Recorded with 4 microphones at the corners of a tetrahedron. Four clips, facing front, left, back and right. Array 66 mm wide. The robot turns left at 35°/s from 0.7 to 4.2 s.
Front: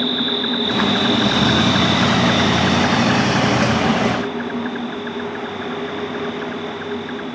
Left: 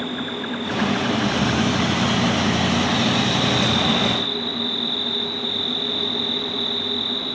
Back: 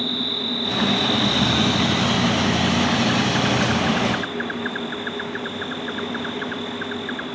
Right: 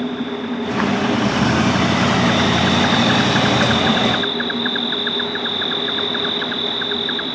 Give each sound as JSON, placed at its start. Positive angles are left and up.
{"t": 0.0, "sound": "an insect", "azimuth_deg": 20}